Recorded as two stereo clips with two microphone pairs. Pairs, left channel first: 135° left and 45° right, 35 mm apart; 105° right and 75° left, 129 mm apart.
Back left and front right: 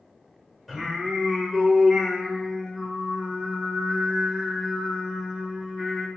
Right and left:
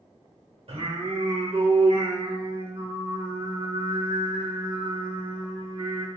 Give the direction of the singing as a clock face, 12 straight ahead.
10 o'clock.